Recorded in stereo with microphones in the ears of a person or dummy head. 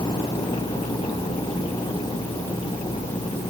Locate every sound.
Only background noise.